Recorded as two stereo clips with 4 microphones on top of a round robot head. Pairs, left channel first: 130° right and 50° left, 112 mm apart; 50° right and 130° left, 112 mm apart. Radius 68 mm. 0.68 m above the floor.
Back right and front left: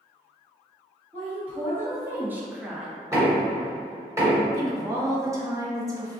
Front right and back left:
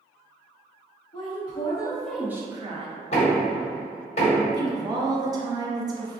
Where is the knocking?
20° right, 1.5 m.